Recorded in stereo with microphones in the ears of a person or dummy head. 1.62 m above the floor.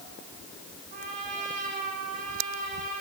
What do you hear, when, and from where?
0.9 s a trumpet: 45° right (ahead or behind), 5 m